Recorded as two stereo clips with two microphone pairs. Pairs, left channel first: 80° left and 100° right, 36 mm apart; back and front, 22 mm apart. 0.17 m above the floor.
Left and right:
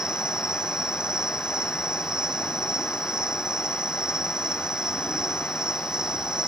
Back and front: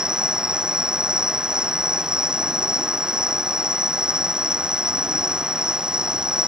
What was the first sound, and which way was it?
An insect, 35° right.